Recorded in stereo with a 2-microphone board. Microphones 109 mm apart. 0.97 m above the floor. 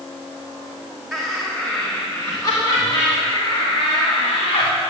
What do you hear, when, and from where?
1.1 s laughter: centre (ahead or behind), 2.5 m; by 4.7 s 70° left (ahead or behind), 4 m